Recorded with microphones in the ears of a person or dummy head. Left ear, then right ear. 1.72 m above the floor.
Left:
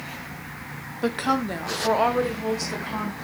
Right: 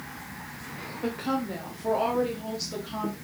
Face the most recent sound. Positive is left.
turn(degrees=30)  # may be behind; listen again after turning